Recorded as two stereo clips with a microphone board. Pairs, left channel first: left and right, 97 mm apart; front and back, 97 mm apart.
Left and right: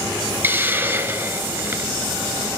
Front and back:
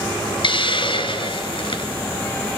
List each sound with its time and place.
0.4 s a hiss: 25° right, 2.5 m